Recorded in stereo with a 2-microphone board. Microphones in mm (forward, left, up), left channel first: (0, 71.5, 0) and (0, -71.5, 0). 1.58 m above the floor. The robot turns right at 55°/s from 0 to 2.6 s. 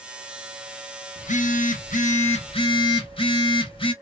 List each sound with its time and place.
1.2 s a phone buzzing: 60° left, 0.7 m; by 3.9 s 140° left, 0.7 m